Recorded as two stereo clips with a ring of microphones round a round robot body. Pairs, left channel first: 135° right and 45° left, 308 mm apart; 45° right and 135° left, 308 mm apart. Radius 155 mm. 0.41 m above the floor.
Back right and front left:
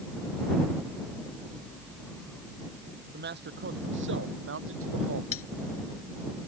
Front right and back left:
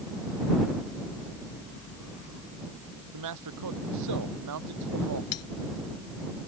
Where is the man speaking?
105° left; by 5.2 s 95° left.